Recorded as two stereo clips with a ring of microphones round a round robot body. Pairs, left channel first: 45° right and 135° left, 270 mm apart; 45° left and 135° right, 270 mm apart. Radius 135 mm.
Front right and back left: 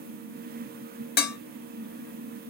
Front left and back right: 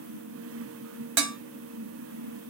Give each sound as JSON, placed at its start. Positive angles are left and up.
{"t": 1.2, "sound": "dishes clattering", "azimuth_deg": -105, "distance_m": 1.2}